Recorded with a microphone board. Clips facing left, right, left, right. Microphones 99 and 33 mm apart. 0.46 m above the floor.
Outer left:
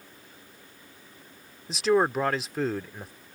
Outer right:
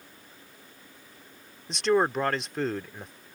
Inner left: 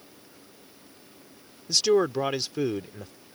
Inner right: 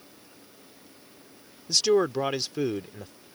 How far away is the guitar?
I don't hear a guitar.